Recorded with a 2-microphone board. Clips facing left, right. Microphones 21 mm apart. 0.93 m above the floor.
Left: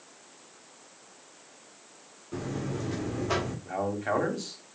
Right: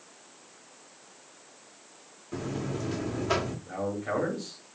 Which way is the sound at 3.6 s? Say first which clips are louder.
Left 2 dB; 65° left (ahead or behind).